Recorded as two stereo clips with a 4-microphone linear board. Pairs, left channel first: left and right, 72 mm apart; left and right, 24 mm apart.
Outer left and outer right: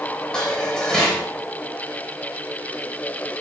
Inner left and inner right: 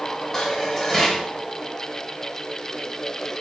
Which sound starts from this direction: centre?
Dishes clattering, at 0.3 s.